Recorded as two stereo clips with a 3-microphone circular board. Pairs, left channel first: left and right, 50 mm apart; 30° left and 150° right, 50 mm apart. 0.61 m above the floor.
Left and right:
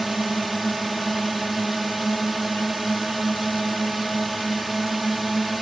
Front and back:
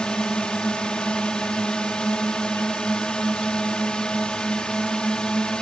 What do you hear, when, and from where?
0.0 s a drone: 5° right